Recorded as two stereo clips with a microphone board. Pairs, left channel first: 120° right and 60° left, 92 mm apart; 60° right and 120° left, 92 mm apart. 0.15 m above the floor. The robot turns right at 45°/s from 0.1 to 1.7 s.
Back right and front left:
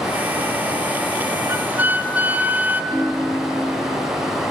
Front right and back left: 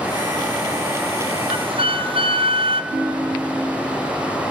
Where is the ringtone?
155° left, 3 m.